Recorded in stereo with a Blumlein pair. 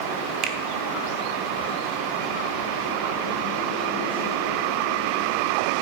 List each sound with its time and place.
0.4 s a finger snap: 35° right, 1.3 m